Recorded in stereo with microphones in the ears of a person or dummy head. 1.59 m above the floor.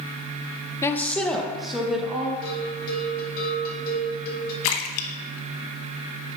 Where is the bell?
55° left (ahead or behind), 2 m.